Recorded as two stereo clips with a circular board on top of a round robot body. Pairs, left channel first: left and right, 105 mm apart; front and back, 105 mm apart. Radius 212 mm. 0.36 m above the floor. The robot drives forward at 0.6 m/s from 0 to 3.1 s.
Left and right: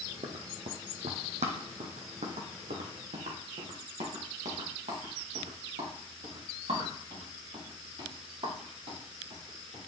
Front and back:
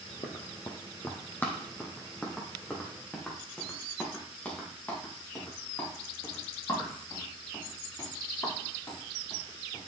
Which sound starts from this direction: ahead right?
Running footsteps, at 0.2 s.